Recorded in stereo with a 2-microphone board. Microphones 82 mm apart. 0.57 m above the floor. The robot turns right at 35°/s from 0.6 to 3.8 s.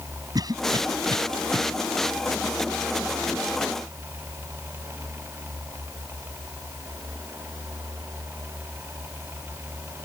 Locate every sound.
0.3 s a cough: 50° right (ahead or behind); by 1.6 s 75° right (ahead or behind)